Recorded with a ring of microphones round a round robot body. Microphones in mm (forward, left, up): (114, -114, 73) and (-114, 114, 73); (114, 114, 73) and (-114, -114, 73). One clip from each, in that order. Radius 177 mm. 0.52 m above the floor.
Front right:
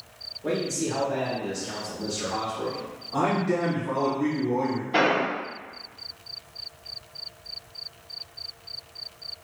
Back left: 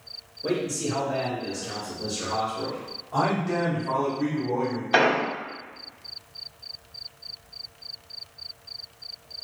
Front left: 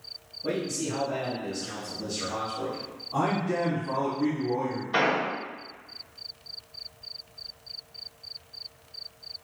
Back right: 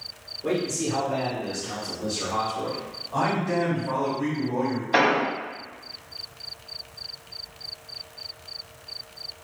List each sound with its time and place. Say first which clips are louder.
0.4 s a man speaking: even, back right 4 dB; 160° left, 1.5 m
3.1 s a man speaking: even, back right 2 dB; 160° left, 1.9 m
4.9 s an explosion: back left 2 dB, back right 4 dB; 160° left, 0.8 m